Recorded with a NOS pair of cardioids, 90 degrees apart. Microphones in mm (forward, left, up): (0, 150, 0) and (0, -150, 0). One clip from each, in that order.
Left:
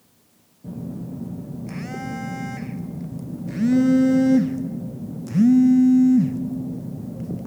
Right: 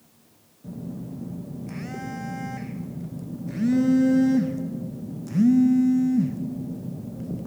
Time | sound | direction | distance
0.6 | a phone buzzing | 20° left | 0.6 m